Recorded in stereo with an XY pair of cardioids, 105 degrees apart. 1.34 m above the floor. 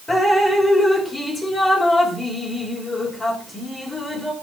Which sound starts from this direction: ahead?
Dripping, at 0.1 s.